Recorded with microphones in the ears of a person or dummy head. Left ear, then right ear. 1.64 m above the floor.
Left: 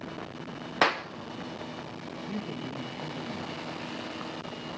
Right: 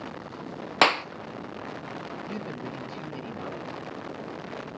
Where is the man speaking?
40° right (ahead or behind), 3 m.